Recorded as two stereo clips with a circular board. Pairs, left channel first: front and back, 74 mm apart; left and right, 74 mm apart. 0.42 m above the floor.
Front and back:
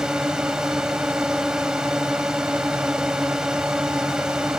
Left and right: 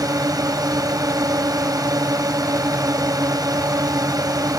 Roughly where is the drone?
Right.